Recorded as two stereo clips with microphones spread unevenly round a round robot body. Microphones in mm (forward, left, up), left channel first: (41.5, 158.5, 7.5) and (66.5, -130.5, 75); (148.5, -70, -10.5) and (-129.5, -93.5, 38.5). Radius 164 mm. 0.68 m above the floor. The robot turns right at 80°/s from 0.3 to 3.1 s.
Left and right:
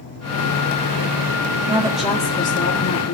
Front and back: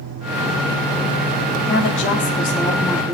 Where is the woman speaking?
10° right, 1.7 m; by 3.2 s 105° left, 1.7 m.